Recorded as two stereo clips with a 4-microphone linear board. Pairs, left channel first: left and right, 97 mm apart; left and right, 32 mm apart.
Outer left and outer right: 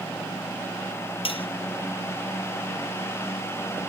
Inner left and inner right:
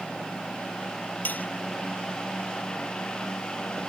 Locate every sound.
1.2 s cutlery clinking: 70° left (ahead or behind)